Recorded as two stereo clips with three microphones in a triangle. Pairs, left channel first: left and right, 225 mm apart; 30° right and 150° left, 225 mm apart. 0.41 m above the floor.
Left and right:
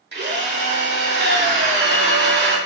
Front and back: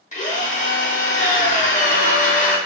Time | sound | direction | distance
0.1 | a drill | 80° right | 0.9 m